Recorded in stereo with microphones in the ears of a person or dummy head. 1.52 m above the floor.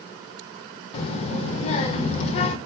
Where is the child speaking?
35° left (ahead or behind), 0.5 m.